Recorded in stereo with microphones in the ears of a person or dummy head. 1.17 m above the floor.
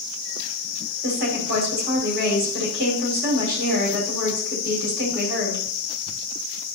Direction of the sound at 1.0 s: 50° right (ahead or behind).